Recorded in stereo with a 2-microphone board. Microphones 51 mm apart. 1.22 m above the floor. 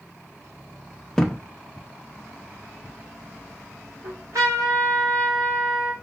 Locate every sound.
1.2 s a thud: 10° left (ahead or behind), 0.5 m
4.0 s a trumpet: 70° right (ahead or behind), 1.6 m